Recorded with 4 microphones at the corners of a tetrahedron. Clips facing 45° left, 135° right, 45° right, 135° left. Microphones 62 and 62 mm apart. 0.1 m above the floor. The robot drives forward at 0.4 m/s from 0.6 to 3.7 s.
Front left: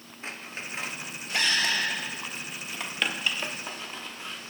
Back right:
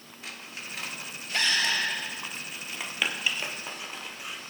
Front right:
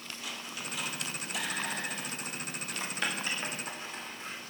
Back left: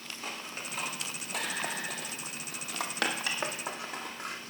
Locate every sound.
0.2 s scissors: 95° left, 1.1 m; by 4.4 s 145° left, 1.7 m